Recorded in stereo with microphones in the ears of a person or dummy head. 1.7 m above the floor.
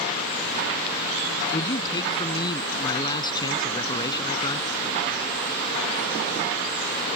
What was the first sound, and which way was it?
A man speaking, 20° left (ahead or behind).